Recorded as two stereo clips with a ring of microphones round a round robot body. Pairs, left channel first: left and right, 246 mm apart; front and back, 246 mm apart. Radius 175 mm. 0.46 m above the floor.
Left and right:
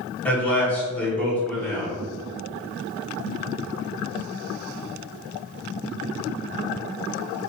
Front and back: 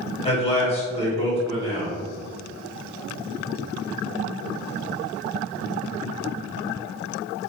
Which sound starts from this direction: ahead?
A man speaking, at 0.2 s.